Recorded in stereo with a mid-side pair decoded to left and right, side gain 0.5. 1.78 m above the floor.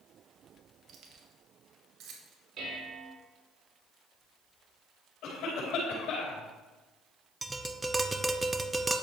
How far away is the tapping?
About 0.9 m.